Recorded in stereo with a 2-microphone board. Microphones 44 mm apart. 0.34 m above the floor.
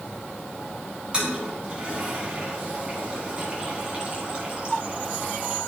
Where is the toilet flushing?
25° right (ahead or behind), 3 m.